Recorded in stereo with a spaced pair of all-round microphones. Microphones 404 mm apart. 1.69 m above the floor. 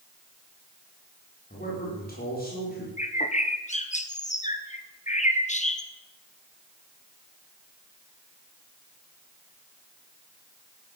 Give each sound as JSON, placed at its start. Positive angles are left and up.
{"t": 1.5, "sound": "a man speaking", "side_deg": 20, "distance_m": 5.5}
{"t": 3.0, "sound": "a bird", "side_deg": 15, "distance_m": 1.2}